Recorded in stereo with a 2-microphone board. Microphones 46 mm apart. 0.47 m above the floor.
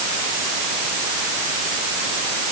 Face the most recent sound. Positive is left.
No sound to turn to.